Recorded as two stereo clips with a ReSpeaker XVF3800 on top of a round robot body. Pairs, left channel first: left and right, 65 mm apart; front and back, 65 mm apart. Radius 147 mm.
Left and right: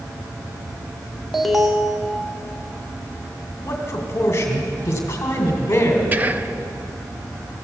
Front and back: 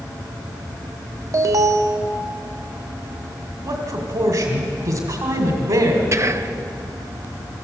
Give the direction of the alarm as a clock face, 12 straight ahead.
6 o'clock.